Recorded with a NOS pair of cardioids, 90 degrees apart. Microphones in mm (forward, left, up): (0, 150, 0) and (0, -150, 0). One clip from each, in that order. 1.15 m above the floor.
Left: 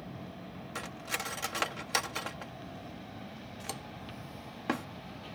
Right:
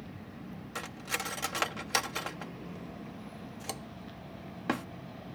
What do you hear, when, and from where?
0.8 s cutlery clinking: 5° right